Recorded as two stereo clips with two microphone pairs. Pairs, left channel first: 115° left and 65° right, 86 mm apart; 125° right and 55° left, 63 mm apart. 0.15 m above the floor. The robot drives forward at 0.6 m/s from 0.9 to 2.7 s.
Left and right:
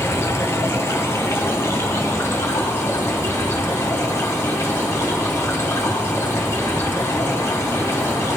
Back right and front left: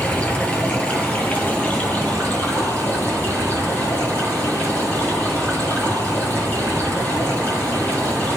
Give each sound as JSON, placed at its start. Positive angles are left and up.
{"t": 0.0, "sound": "running water", "azimuth_deg": 170, "distance_m": 1.2}